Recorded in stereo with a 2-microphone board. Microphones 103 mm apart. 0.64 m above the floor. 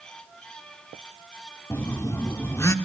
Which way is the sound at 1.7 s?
25° left (ahead or behind).